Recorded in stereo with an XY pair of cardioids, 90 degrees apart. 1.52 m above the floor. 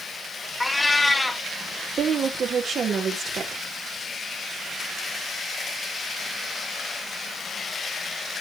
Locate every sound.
0.6 s a cat meowing: 25° left, 2 m
2.0 s a woman speaking: 55° right, 3.5 m